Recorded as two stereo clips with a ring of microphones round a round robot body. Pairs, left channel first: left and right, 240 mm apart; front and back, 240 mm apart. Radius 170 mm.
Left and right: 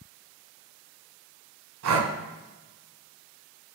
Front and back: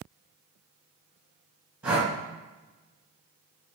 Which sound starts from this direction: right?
Breathing, at 1.8 s.